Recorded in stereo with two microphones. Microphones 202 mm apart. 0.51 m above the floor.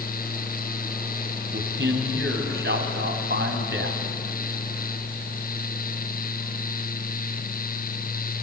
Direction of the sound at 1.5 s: 65° right (ahead or behind).